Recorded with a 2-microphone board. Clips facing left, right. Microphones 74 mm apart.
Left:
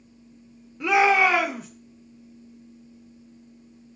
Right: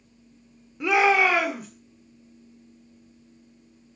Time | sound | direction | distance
0.8 | a shout | 10° right (ahead or behind) | 1.7 m